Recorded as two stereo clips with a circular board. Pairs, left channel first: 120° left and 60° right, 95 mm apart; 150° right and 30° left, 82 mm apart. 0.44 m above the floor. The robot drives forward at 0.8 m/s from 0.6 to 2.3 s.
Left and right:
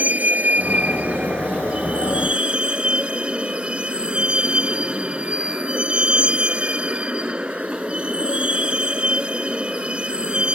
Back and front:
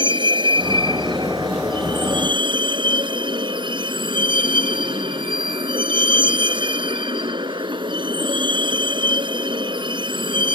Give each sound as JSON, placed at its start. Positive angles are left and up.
{"t": 0.0, "sound": "a vehicle", "azimuth_deg": 15}